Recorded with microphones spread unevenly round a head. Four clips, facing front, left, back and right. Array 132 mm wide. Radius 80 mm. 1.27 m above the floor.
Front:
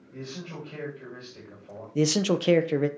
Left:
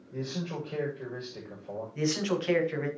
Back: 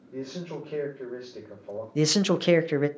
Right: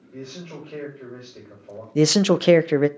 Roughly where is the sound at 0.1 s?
Behind.